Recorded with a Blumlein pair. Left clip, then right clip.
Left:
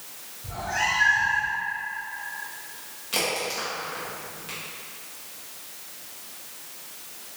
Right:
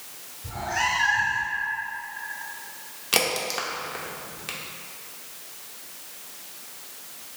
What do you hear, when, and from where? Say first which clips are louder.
0.4 s a cat meowing: even; straight ahead, 1.2 m
3.1 s a crack: right 2 dB; 25° right, 0.7 m